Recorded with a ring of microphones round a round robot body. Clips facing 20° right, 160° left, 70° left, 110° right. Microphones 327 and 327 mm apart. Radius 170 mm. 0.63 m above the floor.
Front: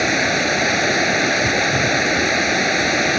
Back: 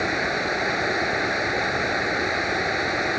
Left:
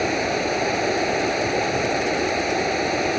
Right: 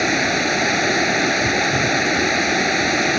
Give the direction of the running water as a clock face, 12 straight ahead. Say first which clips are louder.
Front 6 dB, right 2 dB; 2 o'clock.